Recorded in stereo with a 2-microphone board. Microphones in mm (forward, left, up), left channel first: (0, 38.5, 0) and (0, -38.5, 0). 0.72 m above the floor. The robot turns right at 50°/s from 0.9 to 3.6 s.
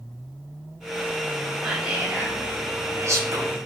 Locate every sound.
1.6 s whispering: 5° right (ahead or behind), 0.6 m; by 3.6 s 40° right (ahead or behind), 0.6 m